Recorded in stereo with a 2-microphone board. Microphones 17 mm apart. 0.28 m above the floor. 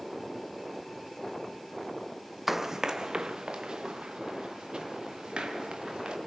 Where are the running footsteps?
10° right (ahead or behind), 0.6 m; by 6.2 s 65° right (ahead or behind), 4 m.